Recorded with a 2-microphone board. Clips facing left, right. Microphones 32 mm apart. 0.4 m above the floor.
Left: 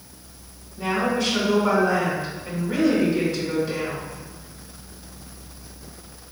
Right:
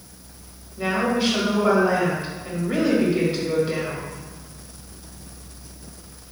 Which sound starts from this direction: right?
A woman speaking, at 0.8 s.